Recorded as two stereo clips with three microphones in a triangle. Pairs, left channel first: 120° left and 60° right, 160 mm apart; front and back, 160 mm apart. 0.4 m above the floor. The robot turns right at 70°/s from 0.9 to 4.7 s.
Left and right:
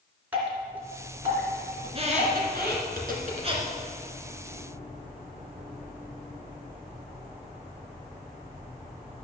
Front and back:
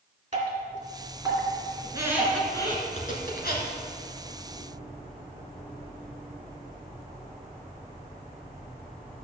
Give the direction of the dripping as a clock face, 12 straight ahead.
5 o'clock.